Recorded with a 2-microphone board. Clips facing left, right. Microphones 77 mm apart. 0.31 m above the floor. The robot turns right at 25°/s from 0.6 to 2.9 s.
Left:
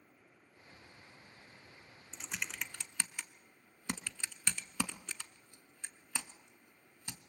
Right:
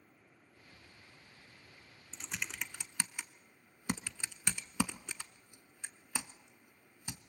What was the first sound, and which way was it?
Typing on a keyboard, 10° left (ahead or behind).